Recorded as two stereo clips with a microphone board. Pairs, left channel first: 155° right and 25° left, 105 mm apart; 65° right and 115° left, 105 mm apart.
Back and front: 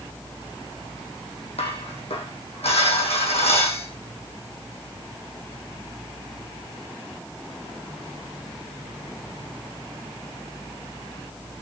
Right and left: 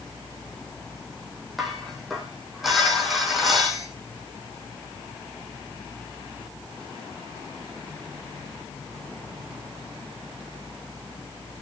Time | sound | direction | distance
1.6 | dishes clattering | 160° right | 3.5 m